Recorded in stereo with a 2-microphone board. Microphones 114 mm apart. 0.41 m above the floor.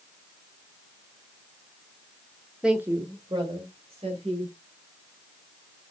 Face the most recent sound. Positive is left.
turn(degrees=-60)  # may be behind; listen again after turning